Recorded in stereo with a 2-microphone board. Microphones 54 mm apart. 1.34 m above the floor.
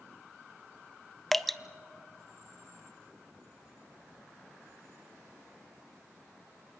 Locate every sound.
1.3 s dripping: 5° left (ahead or behind), 0.5 m